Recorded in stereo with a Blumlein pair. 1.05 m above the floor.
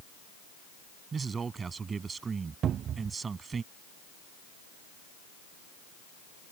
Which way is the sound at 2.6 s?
30° right.